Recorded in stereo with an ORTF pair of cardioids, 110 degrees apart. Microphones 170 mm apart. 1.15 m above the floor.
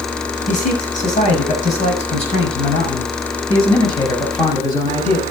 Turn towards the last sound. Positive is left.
turn(degrees=20)